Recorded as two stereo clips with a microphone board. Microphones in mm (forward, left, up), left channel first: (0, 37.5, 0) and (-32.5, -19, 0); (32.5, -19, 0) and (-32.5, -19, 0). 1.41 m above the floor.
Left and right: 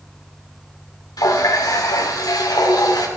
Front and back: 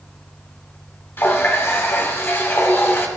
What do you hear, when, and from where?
1.2 s a running tap: 50° left, 2.5 m